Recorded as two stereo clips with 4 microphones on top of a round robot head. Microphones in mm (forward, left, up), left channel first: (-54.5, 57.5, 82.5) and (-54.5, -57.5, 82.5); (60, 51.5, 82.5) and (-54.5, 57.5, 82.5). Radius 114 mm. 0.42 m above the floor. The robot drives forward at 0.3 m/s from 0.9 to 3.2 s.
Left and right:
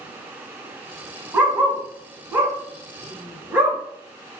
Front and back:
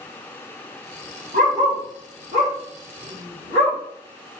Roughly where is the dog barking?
Behind.